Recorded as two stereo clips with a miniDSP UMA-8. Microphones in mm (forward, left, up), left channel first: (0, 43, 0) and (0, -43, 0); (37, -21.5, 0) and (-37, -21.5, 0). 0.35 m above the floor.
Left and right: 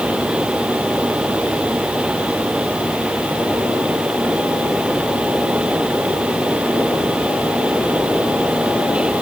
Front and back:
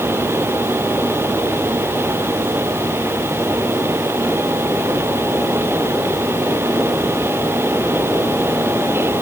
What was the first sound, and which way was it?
Only background noise.